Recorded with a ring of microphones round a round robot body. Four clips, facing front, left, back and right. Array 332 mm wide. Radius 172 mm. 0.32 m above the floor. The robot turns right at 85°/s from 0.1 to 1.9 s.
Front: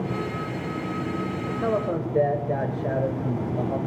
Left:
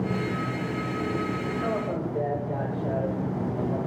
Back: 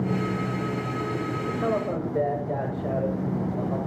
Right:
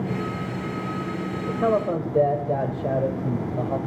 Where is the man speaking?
100° right, 1.4 m; by 3.8 s 60° right, 1.4 m.